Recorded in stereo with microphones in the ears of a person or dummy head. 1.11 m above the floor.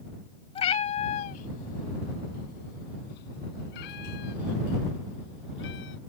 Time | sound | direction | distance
0.6 | a cat meowing | 30° left (ahead or behind) | ?